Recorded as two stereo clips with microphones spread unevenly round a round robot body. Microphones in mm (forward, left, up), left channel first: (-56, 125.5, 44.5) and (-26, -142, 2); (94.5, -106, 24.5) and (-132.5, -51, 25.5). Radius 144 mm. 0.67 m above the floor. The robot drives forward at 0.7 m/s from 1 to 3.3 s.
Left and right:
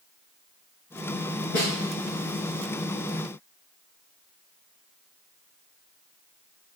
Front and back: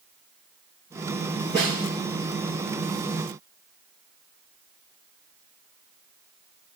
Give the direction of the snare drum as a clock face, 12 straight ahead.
10 o'clock.